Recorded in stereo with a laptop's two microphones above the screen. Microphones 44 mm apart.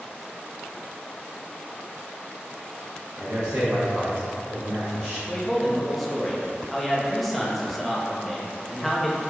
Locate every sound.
3.2 s a man speaking: 70° right (ahead or behind), 0.6 m
5.3 s a man speaking: centre (ahead or behind), 0.6 m